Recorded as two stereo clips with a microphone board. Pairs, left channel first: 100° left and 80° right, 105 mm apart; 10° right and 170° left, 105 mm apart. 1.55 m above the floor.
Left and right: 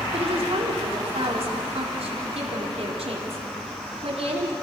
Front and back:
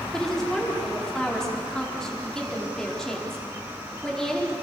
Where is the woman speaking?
95° right, 4.5 m.